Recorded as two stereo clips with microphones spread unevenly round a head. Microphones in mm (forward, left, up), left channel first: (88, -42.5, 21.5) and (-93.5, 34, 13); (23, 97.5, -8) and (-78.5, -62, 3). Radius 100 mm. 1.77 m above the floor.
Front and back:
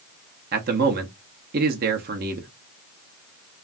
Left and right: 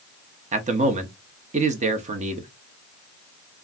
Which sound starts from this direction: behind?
A man speaking, at 0.5 s.